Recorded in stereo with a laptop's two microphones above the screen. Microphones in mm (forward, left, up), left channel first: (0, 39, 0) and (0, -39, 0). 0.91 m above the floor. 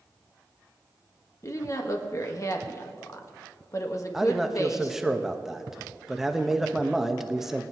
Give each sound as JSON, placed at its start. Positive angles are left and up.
{"t": 1.4, "sound": "a woman speaking", "side_deg": 45, "distance_m": 1.3}
{"t": 4.1, "sound": "a man speaking", "side_deg": -5, "distance_m": 1.0}